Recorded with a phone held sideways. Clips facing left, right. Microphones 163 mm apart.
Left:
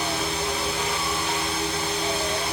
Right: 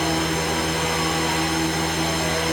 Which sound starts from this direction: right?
A fan, at 0.0 s.